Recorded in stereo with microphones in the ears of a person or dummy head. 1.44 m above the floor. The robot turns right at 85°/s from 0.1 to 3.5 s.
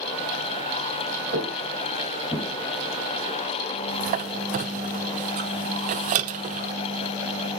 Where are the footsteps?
55° right (ahead or behind), 4 m; by 2.5 s 25° left (ahead or behind), 4.5 m.